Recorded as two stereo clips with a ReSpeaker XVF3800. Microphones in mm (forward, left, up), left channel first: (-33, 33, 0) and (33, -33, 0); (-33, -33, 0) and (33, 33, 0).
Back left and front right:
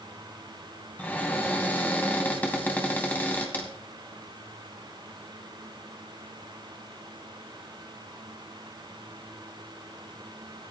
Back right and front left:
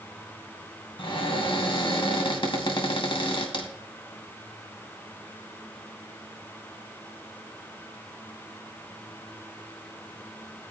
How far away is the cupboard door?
About 2.5 m.